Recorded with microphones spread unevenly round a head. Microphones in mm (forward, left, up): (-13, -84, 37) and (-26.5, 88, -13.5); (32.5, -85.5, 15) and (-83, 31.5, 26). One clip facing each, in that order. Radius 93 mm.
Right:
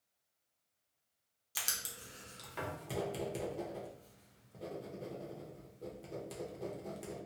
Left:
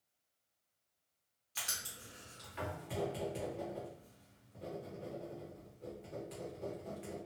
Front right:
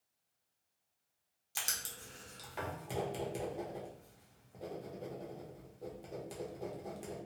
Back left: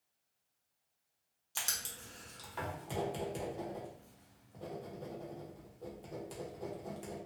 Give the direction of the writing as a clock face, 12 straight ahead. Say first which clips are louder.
Right 1 dB, even; 4 o'clock.